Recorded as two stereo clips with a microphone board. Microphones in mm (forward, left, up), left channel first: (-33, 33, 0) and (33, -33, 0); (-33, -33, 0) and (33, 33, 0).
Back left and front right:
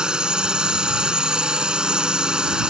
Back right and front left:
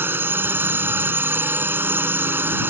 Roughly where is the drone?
Ahead.